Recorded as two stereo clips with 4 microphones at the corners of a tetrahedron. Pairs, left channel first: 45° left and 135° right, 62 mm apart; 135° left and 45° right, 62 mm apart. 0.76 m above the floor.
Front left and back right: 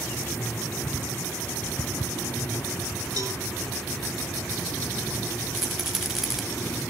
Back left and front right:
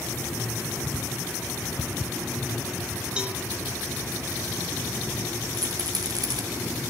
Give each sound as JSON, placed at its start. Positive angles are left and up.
{"t": 3.2, "sound": "a cowbell", "azimuth_deg": -120, "distance_m": 2.5}
{"t": 5.5, "sound": "a rattle", "azimuth_deg": -50, "distance_m": 1.9}